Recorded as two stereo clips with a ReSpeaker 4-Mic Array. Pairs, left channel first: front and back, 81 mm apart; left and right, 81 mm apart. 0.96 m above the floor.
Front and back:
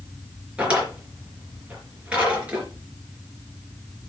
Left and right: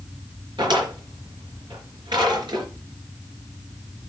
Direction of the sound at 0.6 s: 105° right.